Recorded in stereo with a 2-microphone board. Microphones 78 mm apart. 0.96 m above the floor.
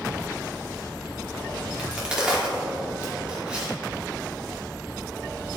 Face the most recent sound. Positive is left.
turn(degrees=-15)  # may be behind; listen again after turning